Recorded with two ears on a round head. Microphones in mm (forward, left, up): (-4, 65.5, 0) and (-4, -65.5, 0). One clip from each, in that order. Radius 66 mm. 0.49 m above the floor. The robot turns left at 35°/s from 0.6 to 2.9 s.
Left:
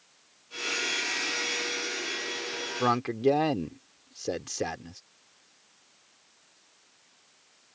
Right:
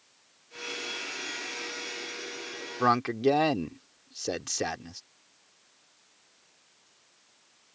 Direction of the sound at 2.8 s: 30° right (ahead or behind).